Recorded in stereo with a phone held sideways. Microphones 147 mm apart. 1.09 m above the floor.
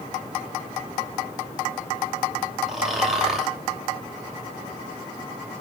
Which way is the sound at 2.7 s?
Centre (ahead or behind).